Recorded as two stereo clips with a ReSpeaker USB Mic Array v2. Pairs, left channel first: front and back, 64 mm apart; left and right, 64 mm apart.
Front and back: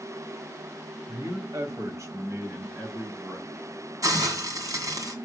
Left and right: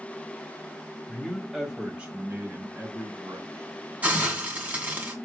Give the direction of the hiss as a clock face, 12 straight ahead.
5 o'clock.